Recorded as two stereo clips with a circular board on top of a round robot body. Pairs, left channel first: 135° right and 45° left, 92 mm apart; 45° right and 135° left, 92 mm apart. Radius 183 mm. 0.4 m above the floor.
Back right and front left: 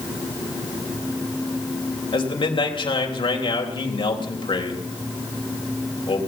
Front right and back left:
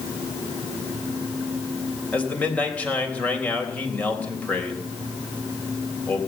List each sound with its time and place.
2.1 s a man speaking: 120° right, 3.5 m